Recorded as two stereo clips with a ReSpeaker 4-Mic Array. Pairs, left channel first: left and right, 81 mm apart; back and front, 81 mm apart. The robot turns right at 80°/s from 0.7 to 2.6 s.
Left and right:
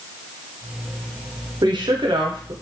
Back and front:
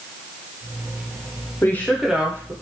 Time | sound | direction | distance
1.6 | a woman speaking | 120° right | 0.6 m